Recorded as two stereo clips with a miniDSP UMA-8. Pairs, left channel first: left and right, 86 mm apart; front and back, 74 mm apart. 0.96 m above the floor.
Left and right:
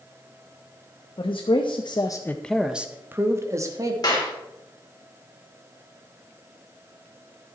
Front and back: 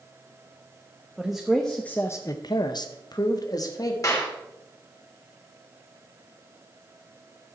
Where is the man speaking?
95° left, 1.1 m; by 3.9 s 40° right, 1.6 m.